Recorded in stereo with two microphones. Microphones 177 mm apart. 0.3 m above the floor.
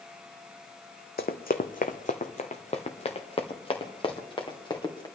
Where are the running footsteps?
70° left (ahead or behind), 1.0 m; by 5.1 s 25° left (ahead or behind), 3 m.